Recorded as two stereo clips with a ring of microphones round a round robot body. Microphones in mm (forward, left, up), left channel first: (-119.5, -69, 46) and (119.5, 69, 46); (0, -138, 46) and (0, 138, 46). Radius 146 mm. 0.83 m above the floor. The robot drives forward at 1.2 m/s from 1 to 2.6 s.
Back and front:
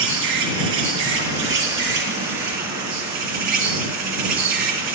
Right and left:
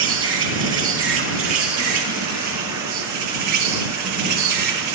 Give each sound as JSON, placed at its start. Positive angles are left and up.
{"t": 0.0, "sound": "an insect", "azimuth_deg": 45, "distance_m": 5.0}